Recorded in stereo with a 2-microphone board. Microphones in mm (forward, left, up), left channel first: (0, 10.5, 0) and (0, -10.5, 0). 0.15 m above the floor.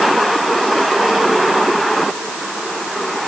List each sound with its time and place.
Only background noise.